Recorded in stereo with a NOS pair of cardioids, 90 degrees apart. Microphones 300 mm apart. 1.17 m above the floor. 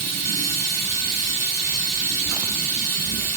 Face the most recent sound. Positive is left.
turn(degrees=-55)